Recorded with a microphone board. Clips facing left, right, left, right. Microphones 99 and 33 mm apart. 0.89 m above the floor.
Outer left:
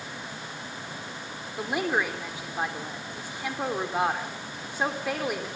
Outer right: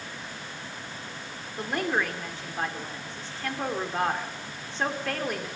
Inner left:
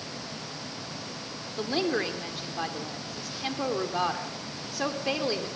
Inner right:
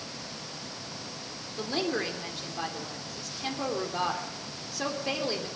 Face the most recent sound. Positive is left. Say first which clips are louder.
# outer left 1 dB, inner left 2 dB
turn(degrees=10)  # may be behind; listen again after turning